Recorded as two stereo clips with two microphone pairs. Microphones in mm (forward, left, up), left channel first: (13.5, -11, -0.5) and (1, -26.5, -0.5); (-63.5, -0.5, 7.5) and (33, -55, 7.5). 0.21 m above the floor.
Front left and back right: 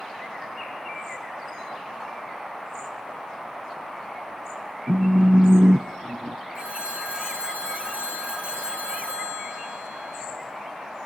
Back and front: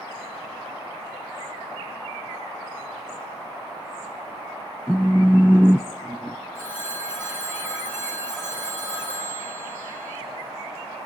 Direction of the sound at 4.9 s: 115° right.